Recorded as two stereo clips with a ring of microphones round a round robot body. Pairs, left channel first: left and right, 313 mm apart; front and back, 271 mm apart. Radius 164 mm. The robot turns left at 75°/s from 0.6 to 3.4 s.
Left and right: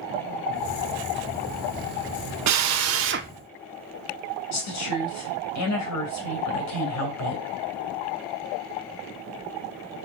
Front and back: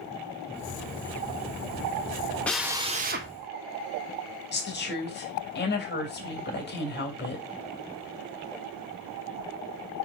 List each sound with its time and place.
2.5 s a drill: 85° right, 0.8 m; by 3.3 s 145° right, 0.8 m
4.5 s a woman speaking: 50° left, 3 m